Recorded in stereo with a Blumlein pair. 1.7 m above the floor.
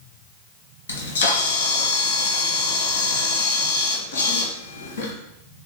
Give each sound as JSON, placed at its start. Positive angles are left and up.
{"t": 0.9, "sound": "a camera shutter", "azimuth_deg": 70, "distance_m": 1.4}